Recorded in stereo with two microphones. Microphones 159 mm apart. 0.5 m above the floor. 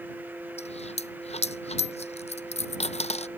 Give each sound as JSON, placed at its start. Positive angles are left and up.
{"t": 0.6, "sound": "a dropped coin", "side_deg": 45}